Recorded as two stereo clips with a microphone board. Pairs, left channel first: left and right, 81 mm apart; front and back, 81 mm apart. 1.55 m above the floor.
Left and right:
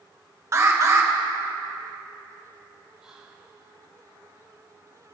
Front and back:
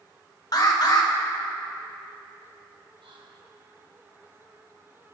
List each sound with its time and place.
0.5 s an alarm: 35° right, 1.4 m
3.0 s whispering: 170° right, 1.8 m